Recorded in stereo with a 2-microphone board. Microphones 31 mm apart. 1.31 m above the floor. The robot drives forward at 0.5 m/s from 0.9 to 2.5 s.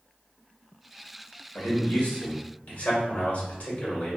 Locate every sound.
1.6 s a man speaking: 65° left (ahead or behind), 1.5 m; by 4.2 s 55° left (ahead or behind), 1.6 m